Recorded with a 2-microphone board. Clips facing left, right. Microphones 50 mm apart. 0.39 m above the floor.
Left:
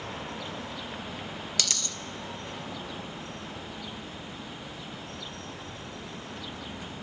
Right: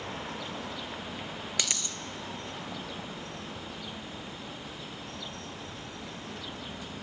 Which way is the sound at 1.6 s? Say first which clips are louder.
Even; 20° right (ahead or behind).